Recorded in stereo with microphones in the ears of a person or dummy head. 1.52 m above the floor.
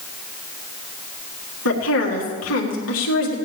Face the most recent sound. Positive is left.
turn(degrees=85)